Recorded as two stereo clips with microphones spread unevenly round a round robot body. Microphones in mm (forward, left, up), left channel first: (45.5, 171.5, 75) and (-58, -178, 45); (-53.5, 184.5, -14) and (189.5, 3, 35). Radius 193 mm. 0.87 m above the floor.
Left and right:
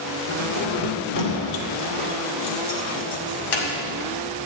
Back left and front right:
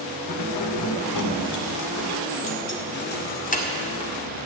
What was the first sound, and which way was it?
Keys jangling, 130° left.